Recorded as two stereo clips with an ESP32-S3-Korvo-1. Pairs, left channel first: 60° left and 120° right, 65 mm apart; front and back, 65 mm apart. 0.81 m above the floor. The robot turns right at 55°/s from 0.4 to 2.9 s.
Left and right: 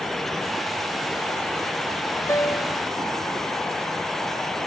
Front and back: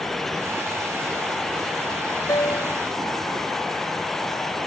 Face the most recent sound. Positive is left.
turn(degrees=50)